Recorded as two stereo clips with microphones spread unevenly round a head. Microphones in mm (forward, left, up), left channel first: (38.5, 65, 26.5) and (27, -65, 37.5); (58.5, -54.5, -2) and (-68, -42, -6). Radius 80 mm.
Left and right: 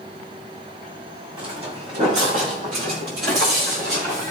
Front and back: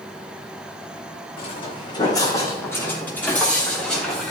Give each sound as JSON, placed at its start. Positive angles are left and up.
{"t": 1.4, "sound": "footsteps", "azimuth_deg": -45, "distance_m": 3.5}